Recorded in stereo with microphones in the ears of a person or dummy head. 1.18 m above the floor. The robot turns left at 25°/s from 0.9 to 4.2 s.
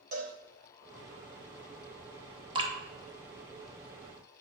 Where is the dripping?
25° right (ahead or behind), 0.7 m; by 2.7 s 20° right (ahead or behind), 0.7 m.